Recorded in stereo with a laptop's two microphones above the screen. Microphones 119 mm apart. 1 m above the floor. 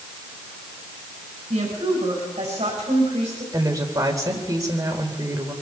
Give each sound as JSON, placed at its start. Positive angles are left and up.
{"t": 1.5, "sound": "a woman speaking", "side_deg": -70, "distance_m": 6.0}
{"t": 3.5, "sound": "a woman speaking", "side_deg": -30, "distance_m": 4.0}